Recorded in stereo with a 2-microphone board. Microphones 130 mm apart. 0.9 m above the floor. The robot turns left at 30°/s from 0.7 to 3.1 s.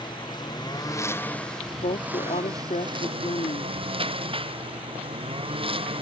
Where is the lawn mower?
30° left; by 6.0 s 40° right.